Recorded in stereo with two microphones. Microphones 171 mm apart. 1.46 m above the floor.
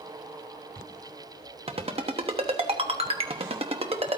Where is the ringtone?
35° right (ahead or behind), 1.0 m.